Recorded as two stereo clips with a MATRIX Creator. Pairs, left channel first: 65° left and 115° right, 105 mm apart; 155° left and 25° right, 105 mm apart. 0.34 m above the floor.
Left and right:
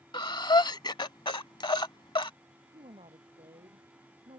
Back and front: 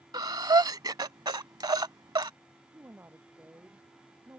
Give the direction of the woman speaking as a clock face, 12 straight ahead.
3 o'clock.